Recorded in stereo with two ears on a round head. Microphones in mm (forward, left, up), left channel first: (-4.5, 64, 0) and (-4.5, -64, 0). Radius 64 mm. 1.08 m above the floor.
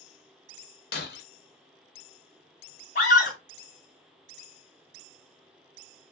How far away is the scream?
About 1.1 m.